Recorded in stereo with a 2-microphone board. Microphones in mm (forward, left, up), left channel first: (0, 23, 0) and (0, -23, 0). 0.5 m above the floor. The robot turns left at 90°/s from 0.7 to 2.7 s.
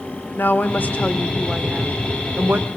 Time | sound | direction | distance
0.3 | a woman speaking | 65° left | 1.3 m